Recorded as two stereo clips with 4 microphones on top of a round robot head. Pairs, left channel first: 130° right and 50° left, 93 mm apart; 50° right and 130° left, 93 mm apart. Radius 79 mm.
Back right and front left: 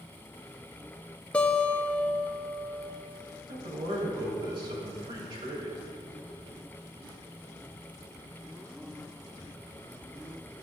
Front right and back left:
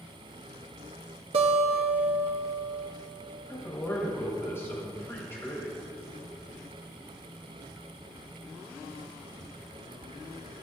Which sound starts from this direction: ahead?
A man speaking, at 3.5 s.